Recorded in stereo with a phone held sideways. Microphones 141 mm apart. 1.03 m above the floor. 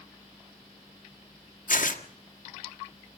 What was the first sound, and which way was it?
Tearing paper, 70° left (ahead or behind).